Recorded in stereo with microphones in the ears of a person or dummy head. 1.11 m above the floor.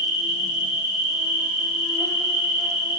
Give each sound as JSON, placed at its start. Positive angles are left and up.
{"t": 0.0, "sound": "an insect", "side_deg": -15, "distance_m": 3.0}